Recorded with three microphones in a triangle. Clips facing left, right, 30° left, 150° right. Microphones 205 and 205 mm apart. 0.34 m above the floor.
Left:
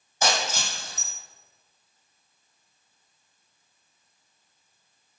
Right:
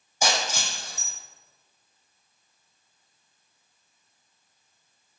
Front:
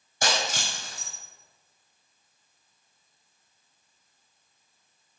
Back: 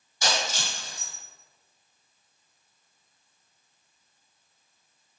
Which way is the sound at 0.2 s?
10° right.